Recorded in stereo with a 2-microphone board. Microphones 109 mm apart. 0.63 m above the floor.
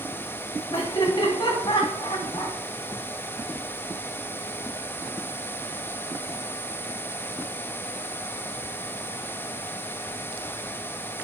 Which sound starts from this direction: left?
Laughter, at 0.7 s.